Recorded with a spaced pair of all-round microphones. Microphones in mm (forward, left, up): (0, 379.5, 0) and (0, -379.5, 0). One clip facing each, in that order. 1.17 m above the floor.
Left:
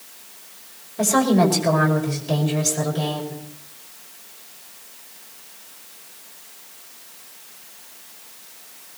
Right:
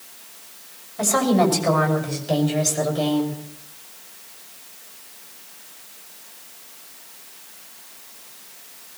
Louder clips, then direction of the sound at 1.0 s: Left 1 dB; 60° left (ahead or behind).